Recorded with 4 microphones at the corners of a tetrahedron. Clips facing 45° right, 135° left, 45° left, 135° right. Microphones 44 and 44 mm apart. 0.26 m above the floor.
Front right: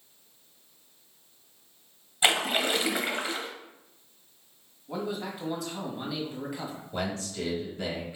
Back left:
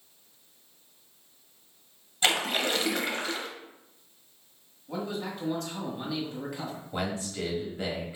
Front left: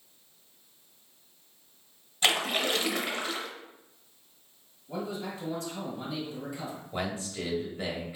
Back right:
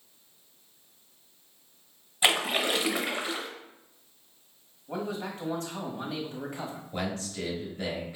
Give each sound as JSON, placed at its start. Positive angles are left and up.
{"t": 2.2, "sound": "a splash", "azimuth_deg": -85, "distance_m": 0.7}
{"t": 4.9, "sound": "a man speaking", "azimuth_deg": -125, "distance_m": 1.3}
{"t": 6.9, "sound": "a man speaking", "azimuth_deg": 95, "distance_m": 1.3}